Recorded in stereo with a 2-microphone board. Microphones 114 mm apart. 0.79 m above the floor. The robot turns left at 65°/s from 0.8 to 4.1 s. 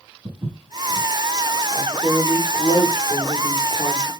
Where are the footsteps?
50° right (ahead or behind), 3.5 m; by 1.1 s 35° right (ahead or behind), 3.5 m.